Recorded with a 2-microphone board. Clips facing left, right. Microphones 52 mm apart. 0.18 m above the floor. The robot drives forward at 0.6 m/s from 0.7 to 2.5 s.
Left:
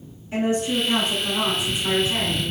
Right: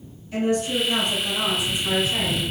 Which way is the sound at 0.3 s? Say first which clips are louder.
Even; 35° left (ahead or behind).